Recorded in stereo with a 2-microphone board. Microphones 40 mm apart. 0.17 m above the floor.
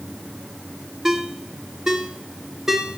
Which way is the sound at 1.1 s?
15° right (ahead or behind).